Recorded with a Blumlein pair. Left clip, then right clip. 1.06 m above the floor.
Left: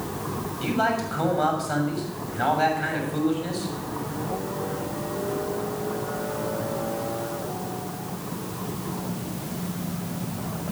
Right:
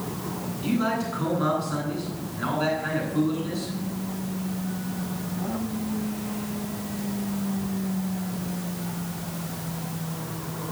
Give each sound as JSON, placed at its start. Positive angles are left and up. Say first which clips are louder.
{"t": 0.6, "sound": "a man speaking", "louder": "left 3 dB", "azimuth_deg": 45, "distance_m": 6.5}